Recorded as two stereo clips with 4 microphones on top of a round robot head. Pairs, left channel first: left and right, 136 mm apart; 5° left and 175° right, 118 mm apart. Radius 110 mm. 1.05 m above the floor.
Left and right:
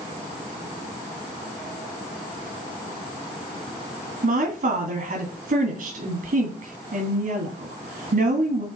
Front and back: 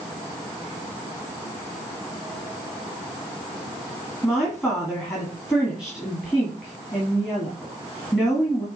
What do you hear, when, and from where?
4.2 s a woman speaking: 65° right, 1.8 m